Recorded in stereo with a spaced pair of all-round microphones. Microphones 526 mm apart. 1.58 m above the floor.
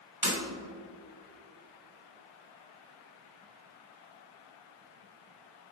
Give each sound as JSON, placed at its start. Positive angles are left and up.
{"t": 0.2, "sound": "breaking glass", "side_deg": -40, "distance_m": 2.5}